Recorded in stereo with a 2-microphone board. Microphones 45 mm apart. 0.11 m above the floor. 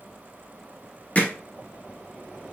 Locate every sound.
1.1 s hammering: 35° left (ahead or behind), 1.3 m